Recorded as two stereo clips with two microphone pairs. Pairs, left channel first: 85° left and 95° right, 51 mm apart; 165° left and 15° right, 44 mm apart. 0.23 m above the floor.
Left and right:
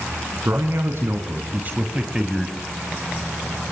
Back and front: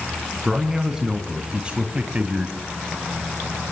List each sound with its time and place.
0.5 s a man speaking: 95° right, 3 m; by 2.6 s 5° right, 1.8 m